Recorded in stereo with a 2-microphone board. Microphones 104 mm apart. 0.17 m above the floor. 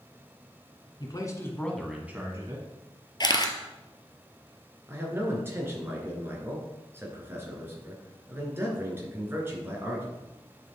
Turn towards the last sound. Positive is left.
turn(degrees=-20)  # may be behind; listen again after turning